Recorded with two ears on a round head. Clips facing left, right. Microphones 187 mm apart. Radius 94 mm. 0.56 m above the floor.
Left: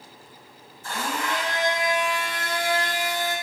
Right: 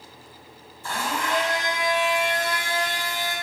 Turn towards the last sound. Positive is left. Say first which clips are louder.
# right 1 dB
turn(degrees=-55)  # may be behind; listen again after turning